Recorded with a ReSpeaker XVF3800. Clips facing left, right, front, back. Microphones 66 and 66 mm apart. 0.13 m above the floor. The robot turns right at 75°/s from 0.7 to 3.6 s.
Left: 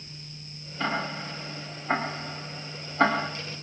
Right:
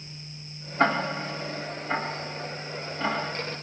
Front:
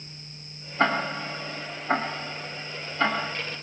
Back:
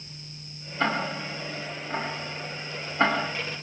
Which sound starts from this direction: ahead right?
Ticking, at 0.8 s.